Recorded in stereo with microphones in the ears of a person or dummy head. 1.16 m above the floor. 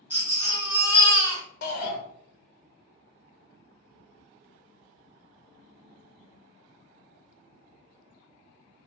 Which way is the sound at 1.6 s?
50° left (ahead or behind).